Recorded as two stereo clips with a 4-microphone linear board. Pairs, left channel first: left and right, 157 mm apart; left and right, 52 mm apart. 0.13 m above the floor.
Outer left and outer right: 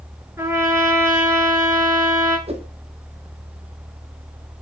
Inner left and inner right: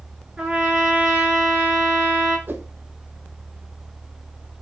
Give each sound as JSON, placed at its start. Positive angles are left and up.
{"t": 0.4, "sound": "a trumpet", "side_deg": -15, "distance_m": 5.5}
{"t": 2.5, "sound": "a whoosh", "side_deg": -40, "distance_m": 1.5}